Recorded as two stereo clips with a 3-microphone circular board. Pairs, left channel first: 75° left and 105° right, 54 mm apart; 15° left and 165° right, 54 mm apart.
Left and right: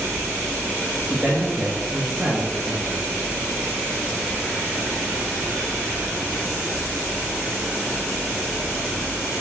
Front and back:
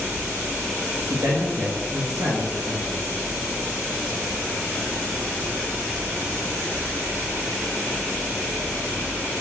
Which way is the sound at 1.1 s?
175° left.